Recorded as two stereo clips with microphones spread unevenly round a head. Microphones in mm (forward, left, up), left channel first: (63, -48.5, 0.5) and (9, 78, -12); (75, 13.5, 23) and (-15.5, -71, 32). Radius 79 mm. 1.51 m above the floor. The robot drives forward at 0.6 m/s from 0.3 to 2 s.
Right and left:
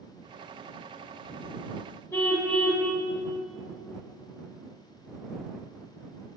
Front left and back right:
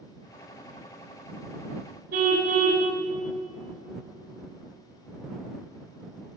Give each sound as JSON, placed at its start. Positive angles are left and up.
{"t": 2.1, "sound": "a car horn", "azimuth_deg": -140, "distance_m": 4.0}